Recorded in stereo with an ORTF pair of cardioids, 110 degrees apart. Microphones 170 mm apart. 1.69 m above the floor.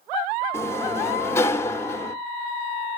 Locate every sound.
0.5 s a sliding door: 15° left, 0.6 m